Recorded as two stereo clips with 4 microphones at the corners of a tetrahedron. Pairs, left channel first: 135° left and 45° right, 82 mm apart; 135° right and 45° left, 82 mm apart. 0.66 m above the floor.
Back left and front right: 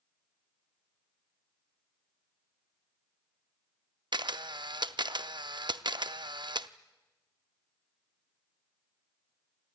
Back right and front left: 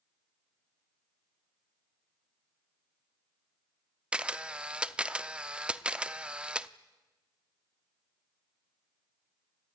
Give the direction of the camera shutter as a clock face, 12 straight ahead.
1 o'clock.